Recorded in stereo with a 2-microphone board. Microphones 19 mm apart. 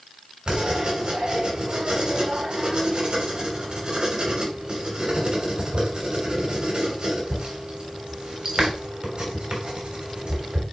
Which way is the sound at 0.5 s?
55° right (ahead or behind).